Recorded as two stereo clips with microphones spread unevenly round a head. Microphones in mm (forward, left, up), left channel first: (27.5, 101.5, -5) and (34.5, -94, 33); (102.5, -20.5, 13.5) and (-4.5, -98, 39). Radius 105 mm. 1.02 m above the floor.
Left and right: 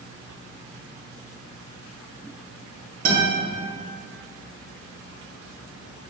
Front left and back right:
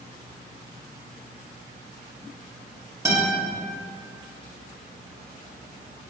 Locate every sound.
3.0 s a guitar: 75° right, 0.9 m